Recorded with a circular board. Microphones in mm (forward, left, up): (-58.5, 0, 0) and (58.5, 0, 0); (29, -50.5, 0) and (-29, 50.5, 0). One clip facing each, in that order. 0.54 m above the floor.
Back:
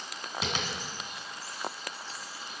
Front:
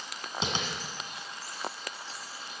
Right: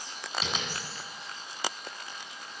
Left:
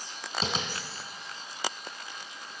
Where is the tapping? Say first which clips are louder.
Front 1 dB, left 4 dB; 65° left, 2 m.